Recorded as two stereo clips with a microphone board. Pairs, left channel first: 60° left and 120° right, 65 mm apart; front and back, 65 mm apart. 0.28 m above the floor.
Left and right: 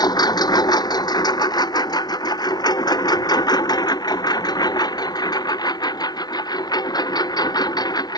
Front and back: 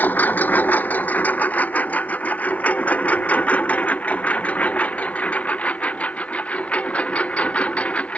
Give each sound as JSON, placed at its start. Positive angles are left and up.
{"t": 0.0, "sound": "a lawn mower", "azimuth_deg": 60}